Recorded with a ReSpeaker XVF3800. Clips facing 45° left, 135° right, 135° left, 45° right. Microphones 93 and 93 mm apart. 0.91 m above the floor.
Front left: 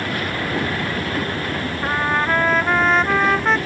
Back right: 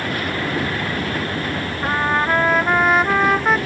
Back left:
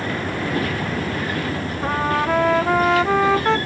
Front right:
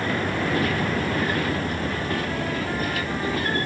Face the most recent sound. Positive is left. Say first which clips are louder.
# back right 1 dB, back left 6 dB
turn(degrees=140)